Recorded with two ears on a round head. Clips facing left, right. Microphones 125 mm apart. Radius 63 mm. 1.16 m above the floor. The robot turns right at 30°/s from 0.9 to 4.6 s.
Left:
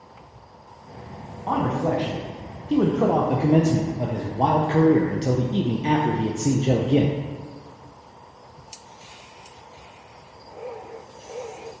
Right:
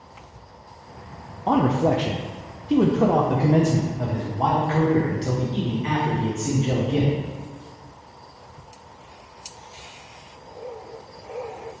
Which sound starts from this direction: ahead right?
A man speaking, at 1.5 s.